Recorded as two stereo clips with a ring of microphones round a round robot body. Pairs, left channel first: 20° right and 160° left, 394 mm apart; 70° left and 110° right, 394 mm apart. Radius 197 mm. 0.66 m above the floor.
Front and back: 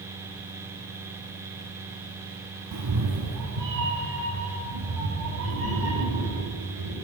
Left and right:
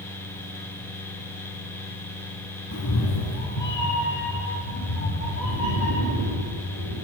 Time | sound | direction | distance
2.7 | a cat meowing | 120° left | 0.8 m